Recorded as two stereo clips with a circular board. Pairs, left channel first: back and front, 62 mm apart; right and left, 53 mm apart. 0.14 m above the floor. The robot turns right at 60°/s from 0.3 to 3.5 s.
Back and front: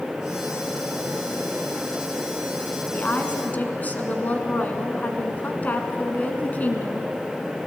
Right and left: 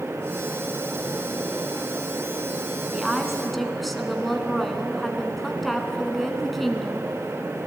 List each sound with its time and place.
2.9 s a woman speaking: 150° left, 1.8 m; by 7.1 s 175° right, 1.8 m